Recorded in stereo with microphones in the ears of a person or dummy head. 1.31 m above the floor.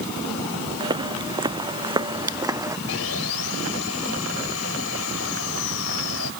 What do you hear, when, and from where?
0.8 s footsteps: 25° right (ahead or behind); by 2.8 s 15° right (ahead or behind)
2.9 s sawing: 80° left